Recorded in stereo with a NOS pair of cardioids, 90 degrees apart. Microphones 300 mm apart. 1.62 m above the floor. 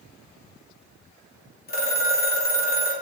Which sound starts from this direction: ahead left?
A phone ringing, at 1.7 s.